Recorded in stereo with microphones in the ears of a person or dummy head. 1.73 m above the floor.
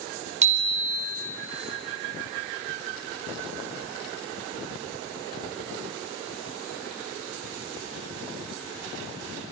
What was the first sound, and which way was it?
A bicycle bell, 40° right (ahead or behind).